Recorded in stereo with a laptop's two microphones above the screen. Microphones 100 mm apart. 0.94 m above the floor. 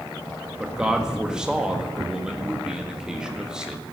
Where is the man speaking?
5° right (ahead or behind), 1.6 m.